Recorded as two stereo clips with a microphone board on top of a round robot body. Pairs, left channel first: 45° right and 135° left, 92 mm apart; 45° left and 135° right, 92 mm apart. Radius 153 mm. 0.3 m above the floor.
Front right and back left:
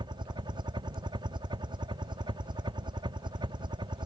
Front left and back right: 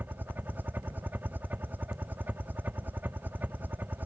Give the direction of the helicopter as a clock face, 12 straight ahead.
7 o'clock.